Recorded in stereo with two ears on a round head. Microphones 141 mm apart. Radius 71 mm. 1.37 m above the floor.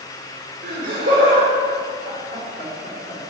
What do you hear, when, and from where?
0.6 s laughter: 55° right (ahead or behind), 4.5 m; by 3.3 s 40° right (ahead or behind), 5 m